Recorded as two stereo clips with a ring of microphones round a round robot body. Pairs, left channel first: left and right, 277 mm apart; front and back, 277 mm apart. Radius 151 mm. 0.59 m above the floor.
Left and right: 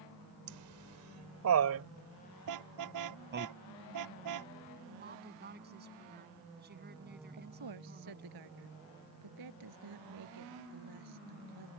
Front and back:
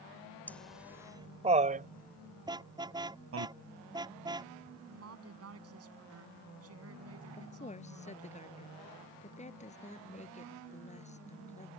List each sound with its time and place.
0.5 s laughter: 85° right; by 3.5 s 145° right
2.5 s a car horn: 105° right
4.9 s a woman speaking: 145° right
7.4 s a woman speaking: 65° right